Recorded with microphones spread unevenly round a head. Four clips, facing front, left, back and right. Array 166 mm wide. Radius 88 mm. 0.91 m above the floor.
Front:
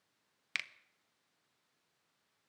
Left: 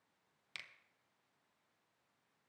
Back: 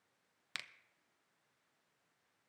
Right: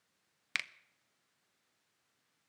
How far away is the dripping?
No dripping in this recording.